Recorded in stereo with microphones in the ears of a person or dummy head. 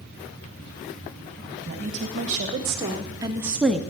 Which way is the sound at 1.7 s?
35° right (ahead or behind).